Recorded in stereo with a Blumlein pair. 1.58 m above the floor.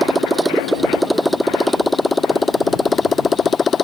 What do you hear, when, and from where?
0.0 s a motorcycle: 5° right; by 3.8 s 20° left